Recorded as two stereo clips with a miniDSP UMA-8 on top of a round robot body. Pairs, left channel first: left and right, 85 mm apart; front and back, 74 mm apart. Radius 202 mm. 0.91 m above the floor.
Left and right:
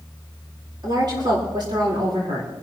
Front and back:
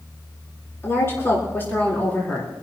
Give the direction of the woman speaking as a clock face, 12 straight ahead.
2 o'clock.